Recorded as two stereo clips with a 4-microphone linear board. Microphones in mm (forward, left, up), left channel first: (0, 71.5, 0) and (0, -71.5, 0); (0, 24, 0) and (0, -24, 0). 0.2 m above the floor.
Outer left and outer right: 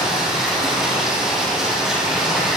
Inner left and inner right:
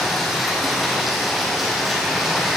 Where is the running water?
5° right (ahead or behind), 3.5 m.